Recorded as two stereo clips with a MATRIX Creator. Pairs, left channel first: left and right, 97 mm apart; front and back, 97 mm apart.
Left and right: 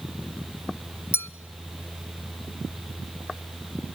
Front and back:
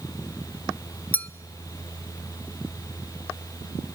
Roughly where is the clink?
Ahead left.